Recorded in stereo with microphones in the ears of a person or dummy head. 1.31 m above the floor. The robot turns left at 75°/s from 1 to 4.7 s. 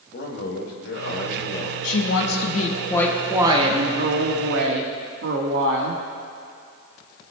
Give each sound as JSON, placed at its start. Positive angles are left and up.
{"t": 0.1, "sound": "a man speaking", "azimuth_deg": 70, "distance_m": 2.0}
{"t": 1.8, "sound": "a woman speaking", "azimuth_deg": 100, "distance_m": 1.5}